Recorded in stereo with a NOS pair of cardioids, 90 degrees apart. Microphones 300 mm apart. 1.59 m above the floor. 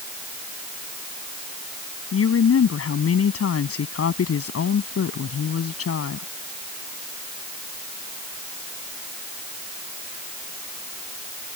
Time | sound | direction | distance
2.1 | a woman speaking | 50° left | ?